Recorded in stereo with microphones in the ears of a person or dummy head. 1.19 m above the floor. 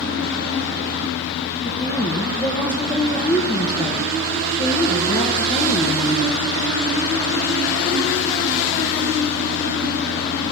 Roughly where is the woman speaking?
Left.